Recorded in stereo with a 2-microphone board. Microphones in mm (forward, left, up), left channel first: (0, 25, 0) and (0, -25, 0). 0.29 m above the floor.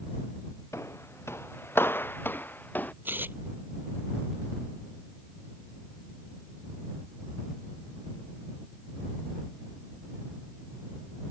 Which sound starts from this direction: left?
Footsteps, at 0.7 s.